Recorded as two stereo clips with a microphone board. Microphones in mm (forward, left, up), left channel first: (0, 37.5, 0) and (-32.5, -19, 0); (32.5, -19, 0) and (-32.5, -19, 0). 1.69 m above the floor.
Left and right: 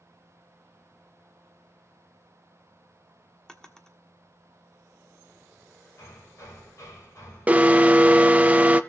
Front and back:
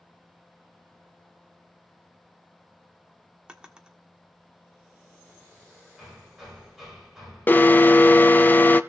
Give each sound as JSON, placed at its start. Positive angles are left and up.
{"t": 3.5, "sound": "a drawer", "azimuth_deg": 125, "distance_m": 1.3}
{"t": 6.0, "sound": "hammering", "azimuth_deg": 100, "distance_m": 7.0}
{"t": 7.5, "sound": "an alarm", "azimuth_deg": -55, "distance_m": 0.8}